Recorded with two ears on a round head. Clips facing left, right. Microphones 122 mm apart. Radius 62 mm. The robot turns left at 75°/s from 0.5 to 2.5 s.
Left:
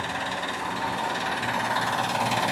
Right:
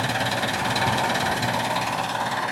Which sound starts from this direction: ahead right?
An engine running, at 0.0 s.